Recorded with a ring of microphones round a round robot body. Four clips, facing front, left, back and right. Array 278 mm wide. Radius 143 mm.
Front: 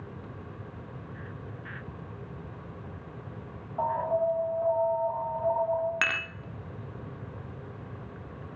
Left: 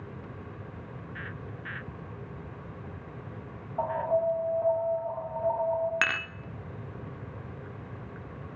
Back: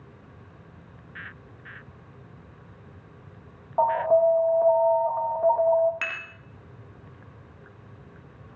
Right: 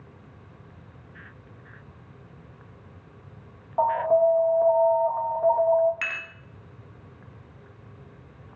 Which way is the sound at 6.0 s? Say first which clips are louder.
Left 5 dB, front 4 dB; 60° left.